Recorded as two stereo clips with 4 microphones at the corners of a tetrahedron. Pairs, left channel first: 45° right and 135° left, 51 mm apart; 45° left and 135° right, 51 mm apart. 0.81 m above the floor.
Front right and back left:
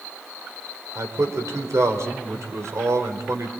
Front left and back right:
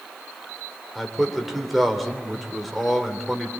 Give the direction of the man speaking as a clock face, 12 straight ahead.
7 o'clock.